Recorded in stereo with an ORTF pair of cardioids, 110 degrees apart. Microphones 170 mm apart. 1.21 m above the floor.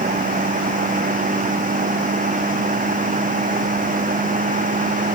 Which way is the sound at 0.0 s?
50° right.